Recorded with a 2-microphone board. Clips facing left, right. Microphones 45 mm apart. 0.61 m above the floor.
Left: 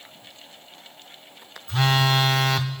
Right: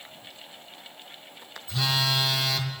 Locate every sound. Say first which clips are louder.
1.7 s a phone buzzing: left 6 dB; 45° left (ahead or behind), 0.5 m